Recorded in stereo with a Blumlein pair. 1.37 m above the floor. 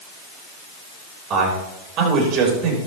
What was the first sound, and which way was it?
A man speaking, 30° right.